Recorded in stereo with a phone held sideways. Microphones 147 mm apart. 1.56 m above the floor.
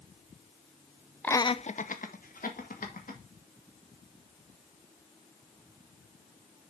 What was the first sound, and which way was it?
Laughter, 10° left (ahead or behind).